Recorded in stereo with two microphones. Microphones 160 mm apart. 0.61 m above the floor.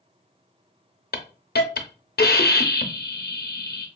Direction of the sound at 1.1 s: 80° left.